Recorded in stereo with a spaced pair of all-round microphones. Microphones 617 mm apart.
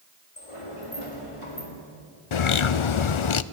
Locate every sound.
0.4 s a sliding door: 60° left (ahead or behind), 3.5 m
2.3 s a bird: 55° left (ahead or behind), 0.5 m